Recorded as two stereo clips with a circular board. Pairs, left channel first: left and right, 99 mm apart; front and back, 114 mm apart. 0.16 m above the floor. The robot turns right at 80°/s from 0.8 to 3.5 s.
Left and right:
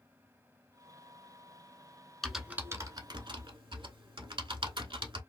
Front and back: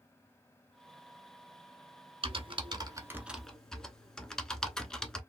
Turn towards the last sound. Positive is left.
turn(degrees=-85)